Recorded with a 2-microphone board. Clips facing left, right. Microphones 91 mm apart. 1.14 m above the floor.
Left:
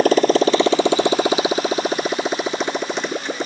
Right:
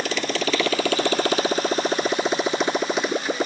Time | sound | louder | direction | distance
0.0 | a motorcycle | left 11 dB | 45° left (ahead or behind) | ?